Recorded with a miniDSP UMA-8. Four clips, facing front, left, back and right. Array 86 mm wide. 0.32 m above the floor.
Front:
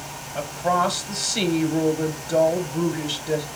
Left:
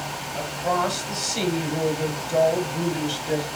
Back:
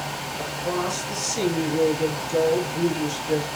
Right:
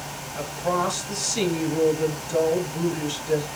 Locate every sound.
0.3 s a woman speaking: 10° left, 2 m